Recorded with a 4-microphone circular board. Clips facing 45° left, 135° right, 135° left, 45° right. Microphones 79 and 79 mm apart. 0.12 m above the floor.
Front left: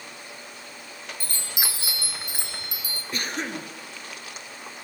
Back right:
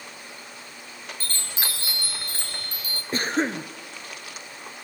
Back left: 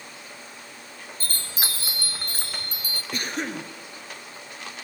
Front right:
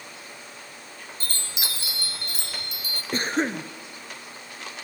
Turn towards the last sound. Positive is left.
turn(degrees=-90)